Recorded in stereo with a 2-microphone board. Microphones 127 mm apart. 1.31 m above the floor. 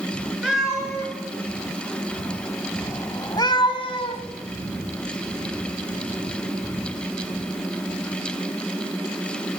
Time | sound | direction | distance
0.4 | a cat meowing | 5° right (ahead or behind) | 3.5 m